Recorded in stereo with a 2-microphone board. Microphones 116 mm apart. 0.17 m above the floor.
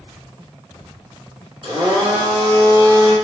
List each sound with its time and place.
1.6 s a blender: 50° right (ahead or behind), 1.4 m